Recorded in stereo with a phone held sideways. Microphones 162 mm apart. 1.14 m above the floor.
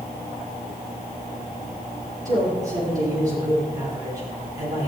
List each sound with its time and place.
2.2 s a man speaking: 20° right (ahead or behind), 9 m